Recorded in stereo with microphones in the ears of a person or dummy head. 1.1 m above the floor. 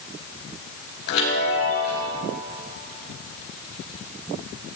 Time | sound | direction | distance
1.1 | a chime | 75° left (ahead or behind) | 4 m